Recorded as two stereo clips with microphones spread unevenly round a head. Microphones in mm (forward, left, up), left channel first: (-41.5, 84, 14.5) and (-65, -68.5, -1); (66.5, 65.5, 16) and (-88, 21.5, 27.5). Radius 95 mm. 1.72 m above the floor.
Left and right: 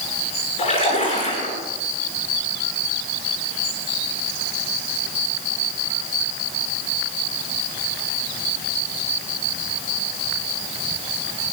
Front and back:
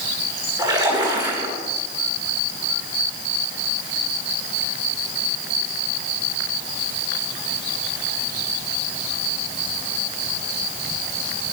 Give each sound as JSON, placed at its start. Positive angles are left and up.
{"t": 0.6, "sound": "a splash", "azimuth_deg": 130, "distance_m": 10.0}